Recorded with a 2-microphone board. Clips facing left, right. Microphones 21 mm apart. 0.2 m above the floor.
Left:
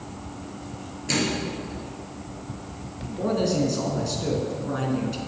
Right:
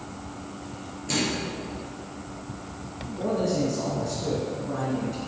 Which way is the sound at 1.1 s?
30° left (ahead or behind).